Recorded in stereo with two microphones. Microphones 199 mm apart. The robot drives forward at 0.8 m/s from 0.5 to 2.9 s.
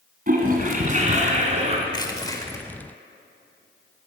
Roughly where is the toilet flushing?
Right.